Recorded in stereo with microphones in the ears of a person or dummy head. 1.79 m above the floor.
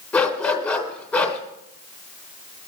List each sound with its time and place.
0.1 s a dog barking: 10° left (ahead or behind), 2.5 m